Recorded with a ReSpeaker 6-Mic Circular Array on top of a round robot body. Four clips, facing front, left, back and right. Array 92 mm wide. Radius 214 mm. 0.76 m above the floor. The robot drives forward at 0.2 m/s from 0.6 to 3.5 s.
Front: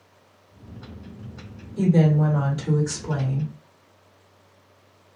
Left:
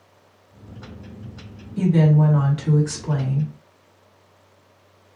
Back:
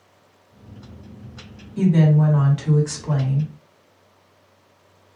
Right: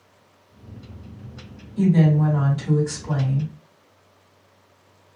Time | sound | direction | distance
1.8 | a woman speaking | 140° left | 1.8 m